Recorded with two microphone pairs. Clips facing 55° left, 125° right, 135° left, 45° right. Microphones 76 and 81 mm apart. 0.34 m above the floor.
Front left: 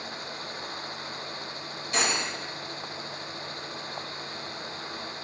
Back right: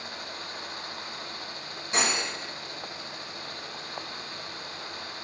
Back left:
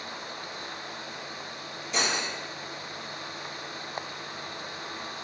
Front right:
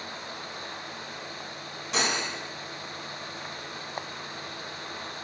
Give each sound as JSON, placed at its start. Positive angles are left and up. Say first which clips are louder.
{"t": 1.9, "sound": "cutlery clinking", "louder": "even, front right 1 dB", "azimuth_deg": -55, "distance_m": 1.4}